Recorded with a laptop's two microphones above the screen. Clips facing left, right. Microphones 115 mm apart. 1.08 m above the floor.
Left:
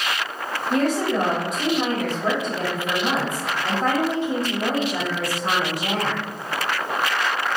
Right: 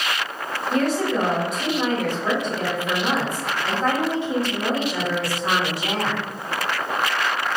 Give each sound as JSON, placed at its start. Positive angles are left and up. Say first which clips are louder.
{"t": 0.7, "sound": "a woman speaking", "louder": "even", "side_deg": 45, "distance_m": 1.2}